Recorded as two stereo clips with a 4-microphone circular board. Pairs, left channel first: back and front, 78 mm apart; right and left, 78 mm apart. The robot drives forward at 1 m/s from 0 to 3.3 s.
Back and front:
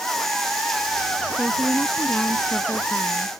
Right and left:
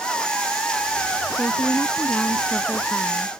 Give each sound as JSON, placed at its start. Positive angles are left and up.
{"t": 1.3, "sound": "a woman speaking", "azimuth_deg": -60}